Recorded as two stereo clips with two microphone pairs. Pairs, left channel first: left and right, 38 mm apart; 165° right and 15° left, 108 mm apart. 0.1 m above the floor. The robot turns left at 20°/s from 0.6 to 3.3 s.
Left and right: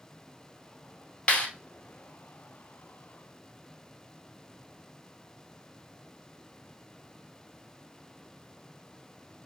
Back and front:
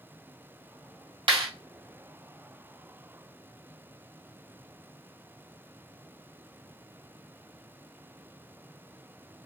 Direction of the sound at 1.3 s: 35° left.